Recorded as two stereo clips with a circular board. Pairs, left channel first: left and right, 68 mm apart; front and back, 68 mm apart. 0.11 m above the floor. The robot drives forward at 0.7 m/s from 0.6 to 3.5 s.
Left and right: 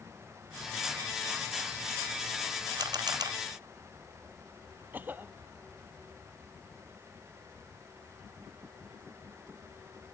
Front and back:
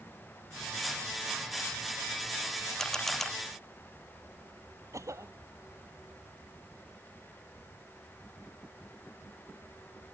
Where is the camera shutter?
80° right; by 3.3 s 85° right.